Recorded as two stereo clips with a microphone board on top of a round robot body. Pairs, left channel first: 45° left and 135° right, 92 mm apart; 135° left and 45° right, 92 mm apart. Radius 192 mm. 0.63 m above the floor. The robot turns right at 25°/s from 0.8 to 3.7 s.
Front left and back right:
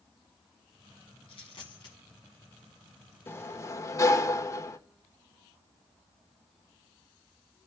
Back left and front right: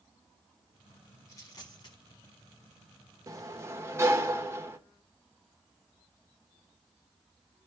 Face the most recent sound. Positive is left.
turn(degrees=5)